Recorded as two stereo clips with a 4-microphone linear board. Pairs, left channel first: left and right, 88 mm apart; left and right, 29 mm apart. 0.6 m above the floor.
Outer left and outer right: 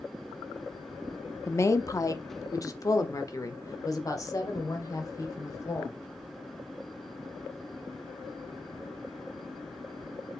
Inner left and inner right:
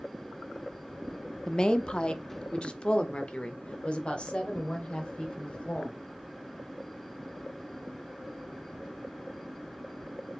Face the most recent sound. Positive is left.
turn(degrees=40)  # may be behind; listen again after turning